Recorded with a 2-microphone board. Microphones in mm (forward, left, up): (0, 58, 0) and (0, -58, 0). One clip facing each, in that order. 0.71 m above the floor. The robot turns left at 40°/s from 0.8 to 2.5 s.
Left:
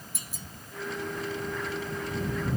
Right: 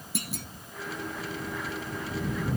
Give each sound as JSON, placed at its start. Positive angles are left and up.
{"t": 0.1, "sound": "a clunk", "side_deg": -75}